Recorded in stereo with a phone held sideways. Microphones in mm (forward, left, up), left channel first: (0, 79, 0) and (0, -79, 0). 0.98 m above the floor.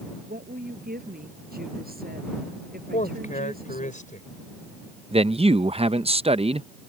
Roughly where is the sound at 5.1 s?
Right.